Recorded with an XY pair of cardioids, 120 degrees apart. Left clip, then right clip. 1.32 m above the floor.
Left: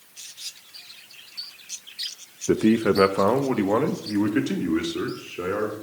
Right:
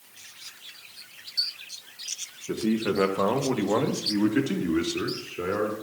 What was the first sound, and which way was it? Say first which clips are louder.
A man speaking: left 7 dB; 60° left.